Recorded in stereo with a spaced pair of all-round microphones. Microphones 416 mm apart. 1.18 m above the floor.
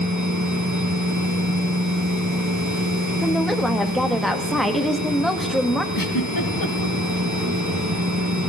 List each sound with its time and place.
0.0 s a machine running: 45° right (ahead or behind), 3 m
3.2 s a woman speaking: centre (ahead or behind), 1.8 m
5.9 s a giggle: 50° left (ahead or behind), 1.4 m